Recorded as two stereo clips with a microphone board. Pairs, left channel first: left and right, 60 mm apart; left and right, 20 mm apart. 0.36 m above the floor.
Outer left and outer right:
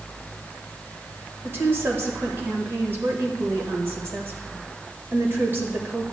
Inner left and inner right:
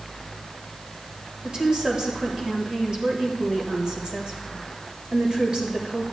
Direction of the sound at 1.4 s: 40° right (ahead or behind).